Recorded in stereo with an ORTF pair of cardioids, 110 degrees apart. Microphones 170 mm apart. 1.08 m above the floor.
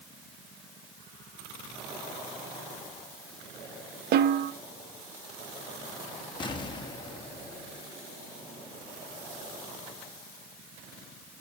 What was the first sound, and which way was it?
A snare drum, 65° right.